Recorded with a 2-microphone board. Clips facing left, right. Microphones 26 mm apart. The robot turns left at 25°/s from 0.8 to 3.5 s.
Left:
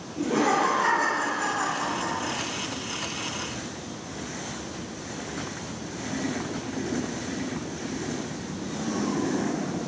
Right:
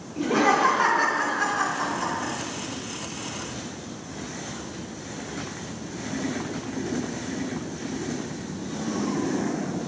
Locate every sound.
0.2 s laughter: 80° right, 1.5 m; by 2.3 s 115° right, 1.5 m